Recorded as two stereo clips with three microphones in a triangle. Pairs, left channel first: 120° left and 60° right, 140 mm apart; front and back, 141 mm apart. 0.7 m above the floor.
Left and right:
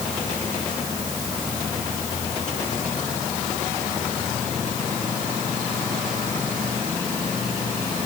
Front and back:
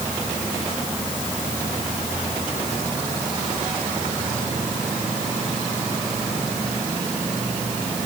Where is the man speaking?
I don't hear a man speaking.